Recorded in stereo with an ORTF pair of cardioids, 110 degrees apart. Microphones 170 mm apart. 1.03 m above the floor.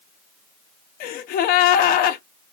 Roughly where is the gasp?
Ahead left.